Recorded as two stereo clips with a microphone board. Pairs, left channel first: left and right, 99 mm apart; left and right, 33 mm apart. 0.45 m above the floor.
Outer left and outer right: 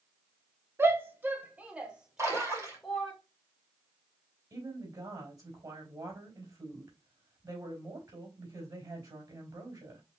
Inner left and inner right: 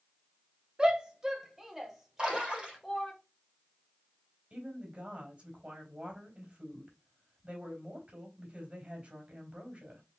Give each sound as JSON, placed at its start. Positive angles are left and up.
{"t": 0.8, "sound": "a shout", "side_deg": -25, "distance_m": 0.9}
{"t": 2.2, "sound": "a splash", "side_deg": -30, "distance_m": 2.0}
{"t": 4.5, "sound": "a woman speaking", "side_deg": -40, "distance_m": 3.0}